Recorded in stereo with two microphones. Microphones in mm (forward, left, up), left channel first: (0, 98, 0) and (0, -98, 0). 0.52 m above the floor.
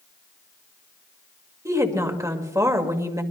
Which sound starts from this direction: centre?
A woman speaking, at 1.6 s.